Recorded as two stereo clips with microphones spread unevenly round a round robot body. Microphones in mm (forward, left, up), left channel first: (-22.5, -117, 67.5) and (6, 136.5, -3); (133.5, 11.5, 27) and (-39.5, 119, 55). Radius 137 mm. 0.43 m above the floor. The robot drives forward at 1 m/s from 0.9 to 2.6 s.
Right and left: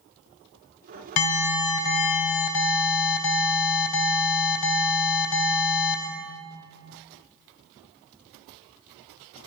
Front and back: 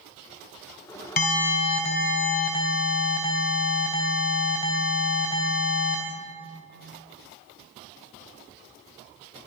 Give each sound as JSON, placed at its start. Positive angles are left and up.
{"t": 1.2, "sound": "an alarm", "azimuth_deg": -70, "distance_m": 3.5}